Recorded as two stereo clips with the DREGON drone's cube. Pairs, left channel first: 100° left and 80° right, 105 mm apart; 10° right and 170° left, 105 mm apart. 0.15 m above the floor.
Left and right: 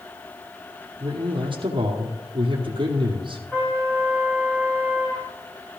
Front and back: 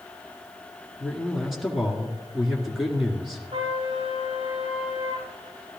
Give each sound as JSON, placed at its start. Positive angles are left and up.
{"t": 1.0, "sound": "a man speaking", "azimuth_deg": -105, "distance_m": 2.0}
{"t": 3.5, "sound": "a trumpet", "azimuth_deg": 175, "distance_m": 6.5}